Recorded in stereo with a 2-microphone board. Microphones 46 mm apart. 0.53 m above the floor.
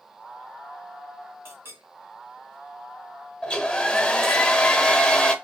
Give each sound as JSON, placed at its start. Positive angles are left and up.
{"t": 1.4, "sound": "a clink", "side_deg": -70, "distance_m": 1.8}
{"t": 3.4, "sound": "a hair dryer", "side_deg": 20, "distance_m": 0.7}